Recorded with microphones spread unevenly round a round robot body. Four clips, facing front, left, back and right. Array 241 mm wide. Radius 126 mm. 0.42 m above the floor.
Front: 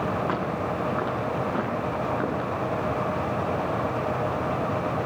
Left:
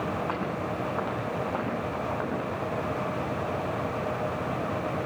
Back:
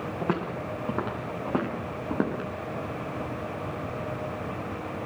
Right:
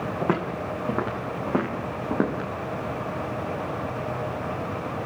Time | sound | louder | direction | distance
0.2 | footsteps | right 4 dB, front 3 dB | 110° right | 10 m